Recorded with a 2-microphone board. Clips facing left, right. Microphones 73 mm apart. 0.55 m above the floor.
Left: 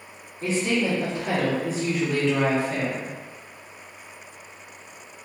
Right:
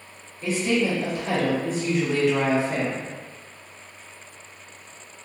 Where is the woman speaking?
45° left (ahead or behind), 1.0 m; by 3.1 s 40° right (ahead or behind), 1.0 m.